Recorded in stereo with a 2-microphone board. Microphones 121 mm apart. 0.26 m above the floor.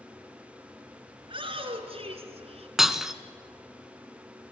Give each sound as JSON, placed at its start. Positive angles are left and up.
{"t": 1.2, "sound": "a shout", "side_deg": -50, "distance_m": 3.0}
{"t": 2.8, "sound": "breaking glass", "side_deg": -5, "distance_m": 0.7}